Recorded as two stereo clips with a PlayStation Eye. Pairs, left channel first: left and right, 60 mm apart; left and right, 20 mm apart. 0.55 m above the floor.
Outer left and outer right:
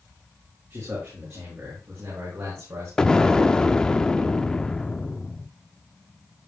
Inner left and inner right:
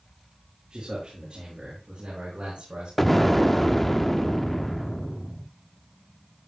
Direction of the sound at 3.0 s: 10° left (ahead or behind).